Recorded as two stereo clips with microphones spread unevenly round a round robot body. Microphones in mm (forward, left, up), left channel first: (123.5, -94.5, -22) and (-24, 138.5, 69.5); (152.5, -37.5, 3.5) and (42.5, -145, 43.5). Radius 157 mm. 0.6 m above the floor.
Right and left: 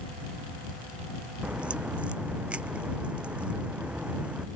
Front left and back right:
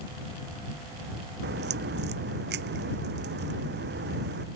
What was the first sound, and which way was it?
A crack, 150° right.